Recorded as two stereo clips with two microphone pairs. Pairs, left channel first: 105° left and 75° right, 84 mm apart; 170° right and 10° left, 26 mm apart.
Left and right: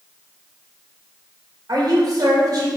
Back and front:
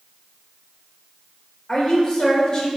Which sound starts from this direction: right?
A woman speaking, at 1.7 s.